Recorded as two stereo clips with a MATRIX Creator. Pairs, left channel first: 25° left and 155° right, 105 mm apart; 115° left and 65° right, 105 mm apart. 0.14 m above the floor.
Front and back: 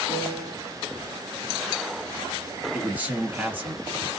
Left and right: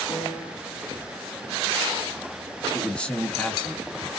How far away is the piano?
About 1.9 m.